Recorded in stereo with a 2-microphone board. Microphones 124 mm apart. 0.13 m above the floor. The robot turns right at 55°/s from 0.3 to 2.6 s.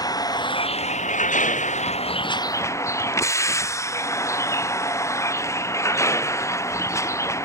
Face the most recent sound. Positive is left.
turn(degrees=155)